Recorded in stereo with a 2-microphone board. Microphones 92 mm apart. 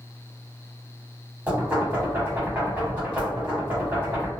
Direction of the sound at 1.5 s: 20° right (ahead or behind).